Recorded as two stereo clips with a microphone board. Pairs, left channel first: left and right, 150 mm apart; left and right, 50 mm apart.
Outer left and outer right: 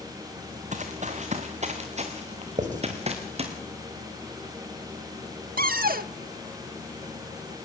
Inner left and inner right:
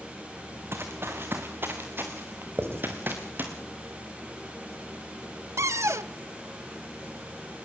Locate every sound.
0.7 s running footsteps: 55° right (ahead or behind), 2.5 m; by 3.5 s 45° right (ahead or behind), 4 m
2.6 s writing: 55° right (ahead or behind), 2.5 m
5.6 s a cupboard door: 75° right (ahead or behind), 0.6 m